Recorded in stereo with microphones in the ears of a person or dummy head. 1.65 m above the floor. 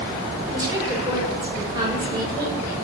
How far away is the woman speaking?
About 6 m.